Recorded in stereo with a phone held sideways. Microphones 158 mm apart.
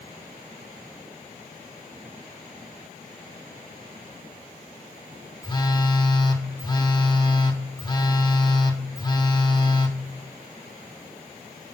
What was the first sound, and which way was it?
A phone buzzing, 25° left (ahead or behind).